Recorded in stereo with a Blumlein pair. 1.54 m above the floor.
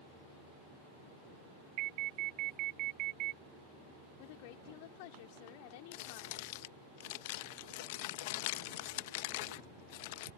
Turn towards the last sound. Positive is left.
turn(degrees=50)